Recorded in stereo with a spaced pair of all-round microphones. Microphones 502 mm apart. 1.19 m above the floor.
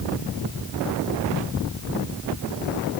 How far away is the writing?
I don't hear writing.